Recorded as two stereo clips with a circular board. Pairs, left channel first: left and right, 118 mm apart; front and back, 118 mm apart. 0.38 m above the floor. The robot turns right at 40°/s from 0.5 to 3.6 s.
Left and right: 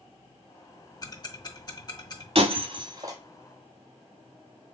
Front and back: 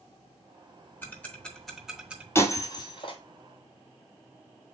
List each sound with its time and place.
1.0 s ticking: 60° left, 0.7 m; by 2.2 s 110° left, 0.7 m
2.4 s breaking glass: 65° right, 0.8 m; by 3.2 s 30° right, 0.8 m